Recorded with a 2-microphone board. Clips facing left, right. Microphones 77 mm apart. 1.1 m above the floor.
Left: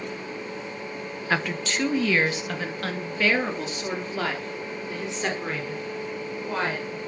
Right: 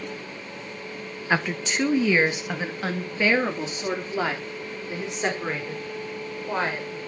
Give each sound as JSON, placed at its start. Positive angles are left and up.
{"t": 1.3, "sound": "a woman speaking", "side_deg": -10, "distance_m": 1.1}